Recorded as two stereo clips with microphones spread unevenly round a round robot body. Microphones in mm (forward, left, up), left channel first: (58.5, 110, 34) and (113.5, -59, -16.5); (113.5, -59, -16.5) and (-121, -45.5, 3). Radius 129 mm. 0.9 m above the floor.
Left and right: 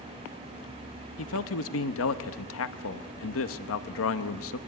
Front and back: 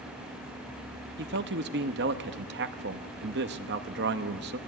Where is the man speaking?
125° left, 1.1 m.